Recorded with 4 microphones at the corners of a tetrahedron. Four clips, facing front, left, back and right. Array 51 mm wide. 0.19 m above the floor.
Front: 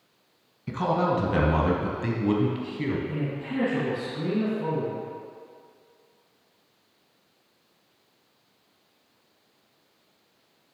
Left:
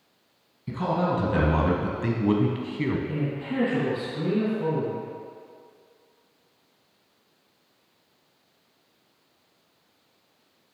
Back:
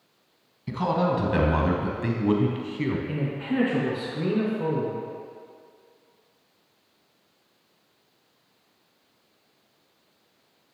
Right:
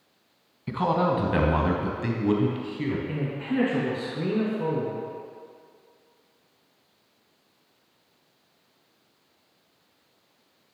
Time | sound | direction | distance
0.7 | a man speaking | 75° right | 1.2 m
3.1 | a man speaking | 145° right | 2.5 m